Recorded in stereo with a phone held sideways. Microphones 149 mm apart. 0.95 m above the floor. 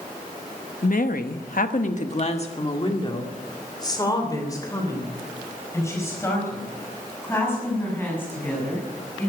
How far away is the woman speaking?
About 1.1 m.